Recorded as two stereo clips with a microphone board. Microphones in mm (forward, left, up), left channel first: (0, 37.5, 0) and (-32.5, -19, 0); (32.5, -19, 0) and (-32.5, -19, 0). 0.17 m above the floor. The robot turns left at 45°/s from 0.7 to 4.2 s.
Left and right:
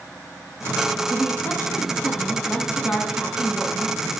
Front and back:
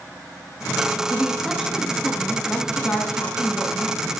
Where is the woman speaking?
105° left, 1.8 m; by 4.2 s 35° right, 1.8 m.